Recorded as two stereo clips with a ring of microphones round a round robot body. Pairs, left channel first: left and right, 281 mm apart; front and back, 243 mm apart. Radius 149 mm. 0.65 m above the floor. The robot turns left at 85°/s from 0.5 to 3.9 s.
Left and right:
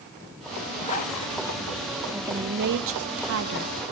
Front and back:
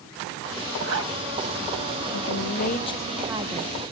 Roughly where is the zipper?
Behind.